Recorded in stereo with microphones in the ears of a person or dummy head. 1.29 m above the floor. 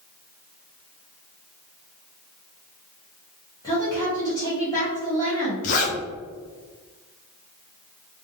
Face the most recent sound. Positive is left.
turn(degrees=40)  # may be behind; listen again after turning